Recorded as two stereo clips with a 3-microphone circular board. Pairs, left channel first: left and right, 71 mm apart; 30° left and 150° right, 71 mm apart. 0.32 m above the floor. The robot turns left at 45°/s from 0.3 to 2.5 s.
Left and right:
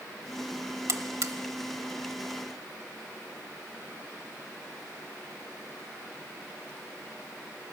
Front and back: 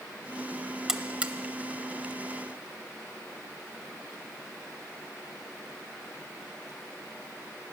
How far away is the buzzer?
About 0.6 m.